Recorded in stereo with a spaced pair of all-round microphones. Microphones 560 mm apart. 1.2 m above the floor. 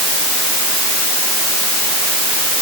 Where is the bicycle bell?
No bicycle bell in this recording.